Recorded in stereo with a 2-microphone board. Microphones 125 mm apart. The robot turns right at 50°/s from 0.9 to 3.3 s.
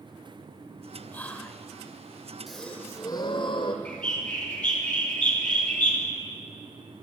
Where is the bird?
10° left (ahead or behind), 2.5 m.